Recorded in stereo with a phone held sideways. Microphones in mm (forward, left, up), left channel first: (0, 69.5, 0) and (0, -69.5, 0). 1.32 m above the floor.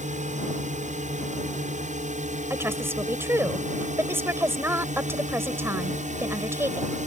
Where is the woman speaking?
15° right (ahead or behind).